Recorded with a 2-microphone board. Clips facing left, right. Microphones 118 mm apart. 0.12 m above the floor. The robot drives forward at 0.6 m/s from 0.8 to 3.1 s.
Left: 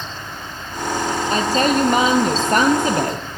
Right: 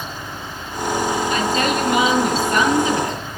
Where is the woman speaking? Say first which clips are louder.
Left 2 dB; 40° left (ahead or behind), 3 m; by 3.4 s 50° left (ahead or behind), 2.5 m.